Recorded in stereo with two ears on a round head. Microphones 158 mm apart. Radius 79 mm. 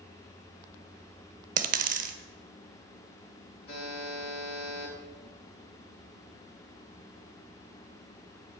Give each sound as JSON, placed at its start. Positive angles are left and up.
{"t": 1.6, "sound": "a dropped coin", "side_deg": -50, "distance_m": 0.7}
{"t": 3.7, "sound": "a buzzer", "side_deg": 35, "distance_m": 3.5}